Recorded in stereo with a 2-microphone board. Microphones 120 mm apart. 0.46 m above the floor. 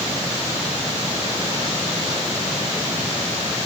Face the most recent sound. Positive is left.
No sound to turn to.